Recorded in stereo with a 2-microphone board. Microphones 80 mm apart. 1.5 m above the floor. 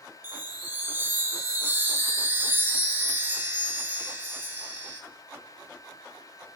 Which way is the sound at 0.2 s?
25° right (ahead or behind).